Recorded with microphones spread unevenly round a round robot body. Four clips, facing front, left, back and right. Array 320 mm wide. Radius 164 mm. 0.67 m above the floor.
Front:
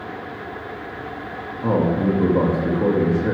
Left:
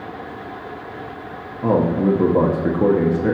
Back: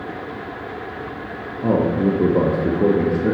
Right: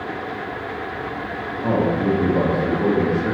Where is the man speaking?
90° left, 1.1 m.